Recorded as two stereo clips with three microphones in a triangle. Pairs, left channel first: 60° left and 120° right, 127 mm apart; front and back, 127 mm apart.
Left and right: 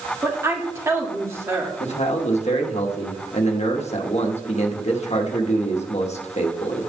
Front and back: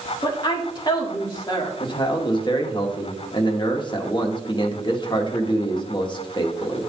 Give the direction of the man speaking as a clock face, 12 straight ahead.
10 o'clock.